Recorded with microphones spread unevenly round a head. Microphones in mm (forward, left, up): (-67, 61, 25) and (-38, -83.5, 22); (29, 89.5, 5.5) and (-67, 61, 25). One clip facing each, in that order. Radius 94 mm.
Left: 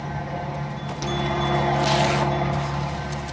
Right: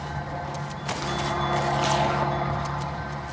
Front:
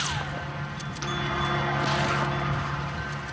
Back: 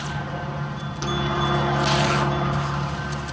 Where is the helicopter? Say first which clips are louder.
Left 3 dB, back 3 dB; 155° left.